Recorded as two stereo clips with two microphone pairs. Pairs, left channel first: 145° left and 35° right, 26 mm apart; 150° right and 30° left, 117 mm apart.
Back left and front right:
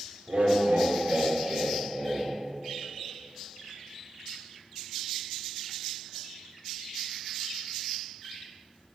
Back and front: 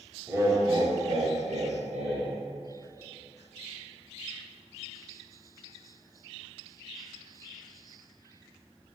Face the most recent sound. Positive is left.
turn(degrees=55)